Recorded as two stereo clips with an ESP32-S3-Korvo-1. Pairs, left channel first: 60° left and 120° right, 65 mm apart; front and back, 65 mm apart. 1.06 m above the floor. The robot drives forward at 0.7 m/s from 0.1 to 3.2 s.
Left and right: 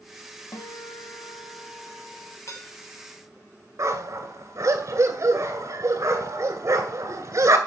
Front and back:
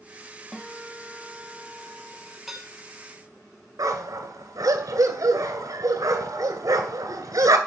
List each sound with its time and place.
0.5 s a guitar: 80° left, 2 m; by 2.4 s 115° left, 2.5 m
2.5 s dishes clattering: 95° left, 2.5 m; by 2.7 s 100° left, 2.5 m
3.8 s a dog barking: 160° right, 2 m